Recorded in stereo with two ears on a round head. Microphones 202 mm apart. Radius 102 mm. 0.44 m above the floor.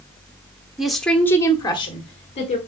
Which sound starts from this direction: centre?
A woman speaking, at 0.8 s.